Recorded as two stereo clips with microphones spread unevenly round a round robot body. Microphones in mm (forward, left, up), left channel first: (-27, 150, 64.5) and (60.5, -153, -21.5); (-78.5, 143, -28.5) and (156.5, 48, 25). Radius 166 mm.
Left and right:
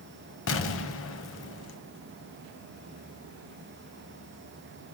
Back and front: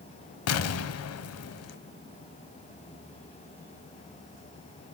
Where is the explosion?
135° left, 0.6 m.